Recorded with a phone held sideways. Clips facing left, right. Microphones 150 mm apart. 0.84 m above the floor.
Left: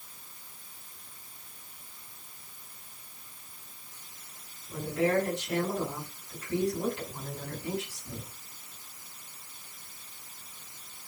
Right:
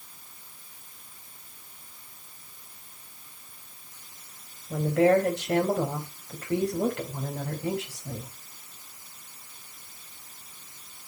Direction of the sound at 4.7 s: 75° right (ahead or behind).